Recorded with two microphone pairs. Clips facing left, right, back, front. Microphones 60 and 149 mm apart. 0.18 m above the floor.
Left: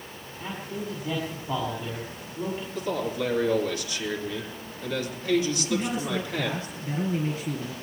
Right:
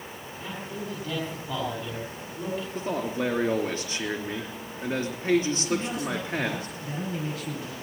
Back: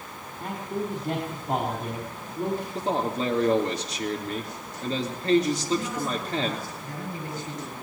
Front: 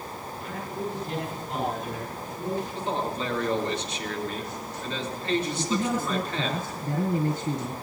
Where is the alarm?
I don't hear an alarm.